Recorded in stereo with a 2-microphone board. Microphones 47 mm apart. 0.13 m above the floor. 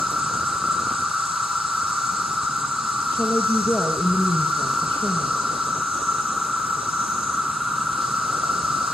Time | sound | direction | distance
0.0 | an insect | 5° right (ahead or behind) | 3 m
3.1 | a woman speaking | 45° left (ahead or behind) | 3.5 m